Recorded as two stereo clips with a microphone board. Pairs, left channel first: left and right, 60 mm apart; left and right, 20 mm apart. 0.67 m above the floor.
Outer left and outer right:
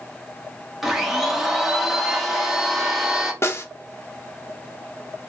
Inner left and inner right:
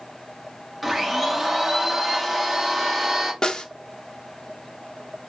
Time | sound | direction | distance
0.8 | a blender | 5° right (ahead or behind) | 1.3 m
3.4 | a snare drum | 45° left (ahead or behind) | 0.6 m